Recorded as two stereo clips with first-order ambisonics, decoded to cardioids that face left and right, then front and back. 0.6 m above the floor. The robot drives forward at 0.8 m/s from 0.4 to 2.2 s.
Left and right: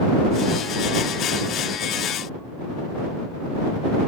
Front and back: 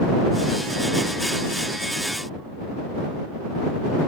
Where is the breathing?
I don't hear breathing.